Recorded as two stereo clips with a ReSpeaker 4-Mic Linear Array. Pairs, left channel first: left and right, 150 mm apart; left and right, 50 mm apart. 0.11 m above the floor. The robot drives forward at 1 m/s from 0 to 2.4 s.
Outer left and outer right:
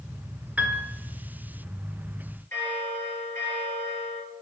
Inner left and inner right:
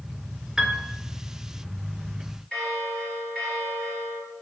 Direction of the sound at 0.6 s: 10° right (ahead or behind).